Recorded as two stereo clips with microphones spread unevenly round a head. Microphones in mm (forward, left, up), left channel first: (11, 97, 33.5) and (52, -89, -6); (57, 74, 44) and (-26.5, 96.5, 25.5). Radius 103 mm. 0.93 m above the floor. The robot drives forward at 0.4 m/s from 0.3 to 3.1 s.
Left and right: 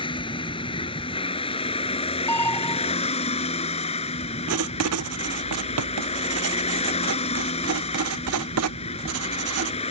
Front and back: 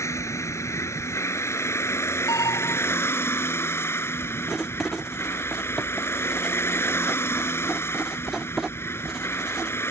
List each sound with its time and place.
0.0 s a vehicle: 40° left; by 9.9 s 45° left
2.3 s an alarm: 25° left
4.5 s writing: 100° right